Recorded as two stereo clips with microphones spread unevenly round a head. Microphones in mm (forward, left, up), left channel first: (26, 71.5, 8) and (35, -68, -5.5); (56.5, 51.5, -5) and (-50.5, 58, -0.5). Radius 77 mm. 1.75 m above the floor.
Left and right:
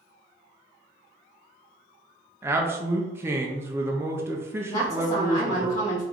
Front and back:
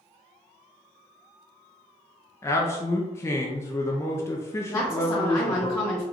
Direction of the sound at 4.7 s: 60° left.